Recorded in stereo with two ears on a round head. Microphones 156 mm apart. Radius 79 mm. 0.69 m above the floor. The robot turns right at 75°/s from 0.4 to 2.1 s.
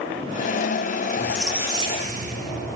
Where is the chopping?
No chopping in this recording.